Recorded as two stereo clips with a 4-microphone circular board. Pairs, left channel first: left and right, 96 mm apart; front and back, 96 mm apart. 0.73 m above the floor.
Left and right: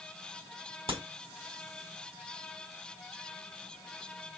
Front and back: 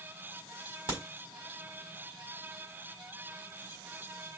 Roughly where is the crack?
Right.